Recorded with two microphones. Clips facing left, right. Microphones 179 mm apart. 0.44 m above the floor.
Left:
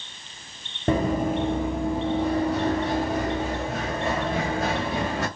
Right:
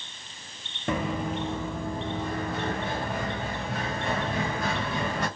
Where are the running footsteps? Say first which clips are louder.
Left 6 dB; 35° left (ahead or behind), 0.6 m; by 5.3 s 75° left (ahead or behind), 2.5 m.